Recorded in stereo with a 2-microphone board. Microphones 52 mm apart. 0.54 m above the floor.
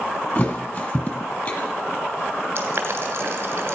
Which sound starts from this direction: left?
A thud, at 0.3 s.